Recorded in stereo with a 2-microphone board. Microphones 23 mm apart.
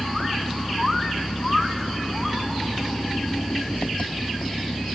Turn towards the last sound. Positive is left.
turn(degrees=85)